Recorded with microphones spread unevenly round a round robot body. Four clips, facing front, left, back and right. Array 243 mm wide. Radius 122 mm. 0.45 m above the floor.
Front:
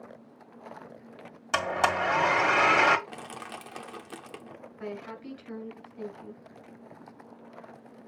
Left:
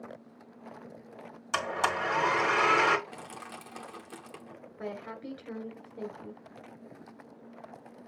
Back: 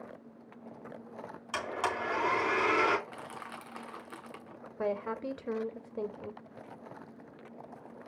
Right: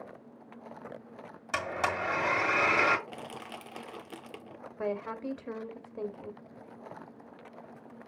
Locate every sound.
1.5 s a blender: 10° right, 1.9 m
3.1 s crushing: 20° right, 1.1 m
4.8 s a woman speaking: 150° right, 2 m